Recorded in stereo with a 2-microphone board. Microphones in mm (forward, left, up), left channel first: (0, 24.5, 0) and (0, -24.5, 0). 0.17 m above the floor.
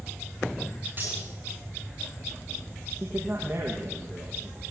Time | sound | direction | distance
1.0 | cutlery clinking | 40° right (ahead or behind) | 8 m
3.0 | a man speaking | 40° right (ahead or behind) | 7 m